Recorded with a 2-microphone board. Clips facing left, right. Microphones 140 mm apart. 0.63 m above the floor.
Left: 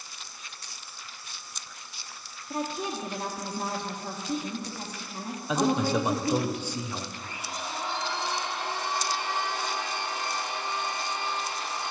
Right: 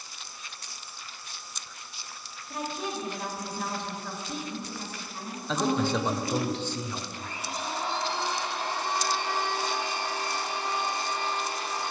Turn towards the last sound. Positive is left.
turn(degrees=-35)  # may be behind; listen again after turning